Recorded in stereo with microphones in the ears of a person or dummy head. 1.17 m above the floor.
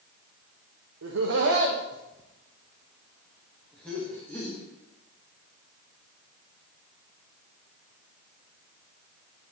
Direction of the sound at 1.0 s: 70° right (ahead or behind).